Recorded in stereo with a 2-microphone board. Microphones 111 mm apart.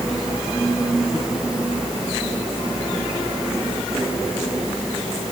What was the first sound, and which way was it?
Only background noise.